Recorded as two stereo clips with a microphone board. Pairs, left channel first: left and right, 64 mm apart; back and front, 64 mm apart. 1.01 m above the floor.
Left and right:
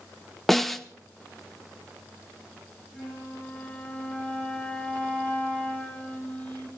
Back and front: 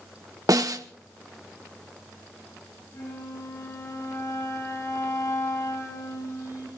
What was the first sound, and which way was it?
A snare drum, 5° left.